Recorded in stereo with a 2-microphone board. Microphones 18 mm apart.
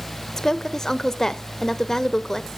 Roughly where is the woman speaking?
Left.